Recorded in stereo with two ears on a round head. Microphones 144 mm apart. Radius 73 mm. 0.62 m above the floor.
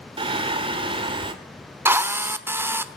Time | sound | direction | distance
0.2 | singing | 35° right (ahead or behind) | 2 m
1.9 | a drill | 15° right (ahead or behind) | 1.1 m